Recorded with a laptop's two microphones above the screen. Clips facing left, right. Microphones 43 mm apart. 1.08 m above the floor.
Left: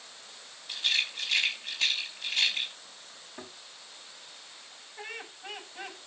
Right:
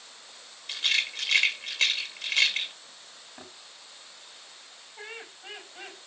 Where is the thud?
Centre (ahead or behind), 7 m.